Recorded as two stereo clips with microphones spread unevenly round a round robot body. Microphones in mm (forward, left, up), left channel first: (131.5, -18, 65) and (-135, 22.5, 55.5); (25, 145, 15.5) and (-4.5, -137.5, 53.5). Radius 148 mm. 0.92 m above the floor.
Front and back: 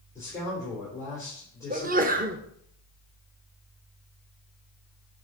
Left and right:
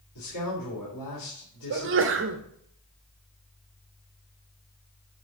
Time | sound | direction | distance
0.1 | a man speaking | 70° left | 3 m
1.7 | a sneeze | 140° right | 1.0 m